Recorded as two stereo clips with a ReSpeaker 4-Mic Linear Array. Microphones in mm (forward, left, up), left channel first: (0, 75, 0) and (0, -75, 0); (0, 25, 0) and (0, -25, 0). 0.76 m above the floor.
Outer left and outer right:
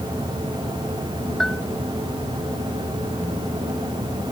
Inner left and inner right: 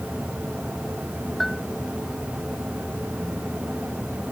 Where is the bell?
5° left (ahead or behind).